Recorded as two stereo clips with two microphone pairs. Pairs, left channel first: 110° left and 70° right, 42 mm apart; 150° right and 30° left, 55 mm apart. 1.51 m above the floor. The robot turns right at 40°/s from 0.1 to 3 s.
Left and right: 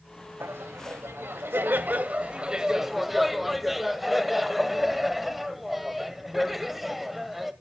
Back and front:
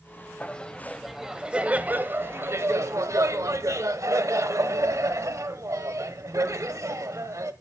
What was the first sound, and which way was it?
Laughter, 85° right.